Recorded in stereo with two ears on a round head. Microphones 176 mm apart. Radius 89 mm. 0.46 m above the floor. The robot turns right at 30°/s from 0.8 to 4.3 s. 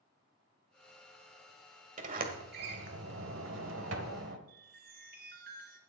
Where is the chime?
50° right (ahead or behind), 2.5 m.